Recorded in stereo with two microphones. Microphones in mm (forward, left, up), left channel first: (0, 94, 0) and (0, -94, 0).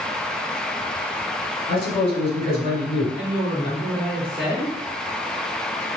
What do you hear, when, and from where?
1.7 s a man speaking: 30° left (ahead or behind), 1.9 m
3.2 s a woman speaking: 25° left (ahead or behind), 1.6 m